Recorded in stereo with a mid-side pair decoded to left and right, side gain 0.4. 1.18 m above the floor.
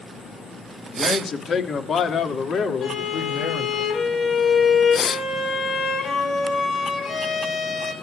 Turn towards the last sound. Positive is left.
turn(degrees=65)